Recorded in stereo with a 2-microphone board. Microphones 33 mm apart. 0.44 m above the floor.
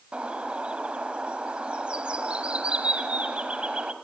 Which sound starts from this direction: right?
A bird, at 0.1 s.